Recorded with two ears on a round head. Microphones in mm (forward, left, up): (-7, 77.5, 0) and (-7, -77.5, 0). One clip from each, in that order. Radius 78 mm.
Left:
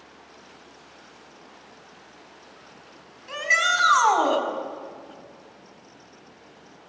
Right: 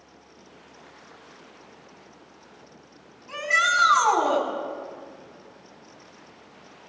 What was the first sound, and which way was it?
A shout, 70° left (ahead or behind).